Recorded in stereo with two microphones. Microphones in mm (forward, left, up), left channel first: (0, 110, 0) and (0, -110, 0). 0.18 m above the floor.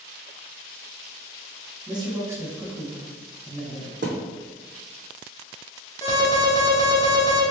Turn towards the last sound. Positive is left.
turn(degrees=15)  # may be behind; listen again after turning